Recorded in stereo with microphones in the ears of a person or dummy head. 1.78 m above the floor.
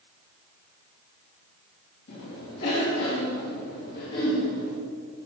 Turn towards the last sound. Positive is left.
turn(degrees=60)  # may be behind; listen again after turning